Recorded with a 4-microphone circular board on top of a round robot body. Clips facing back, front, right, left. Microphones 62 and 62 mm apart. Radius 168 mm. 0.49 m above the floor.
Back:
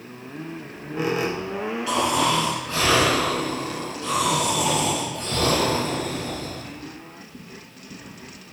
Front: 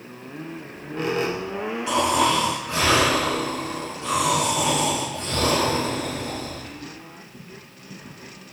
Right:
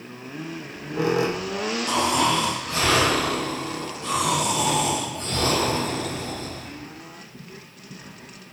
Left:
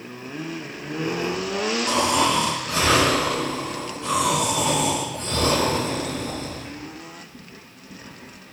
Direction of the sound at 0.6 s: 95° right.